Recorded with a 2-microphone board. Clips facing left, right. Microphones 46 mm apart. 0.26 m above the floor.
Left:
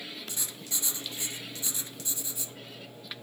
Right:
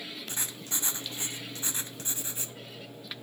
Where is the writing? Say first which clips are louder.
Right 2 dB; 40° right (ahead or behind), 1.6 m.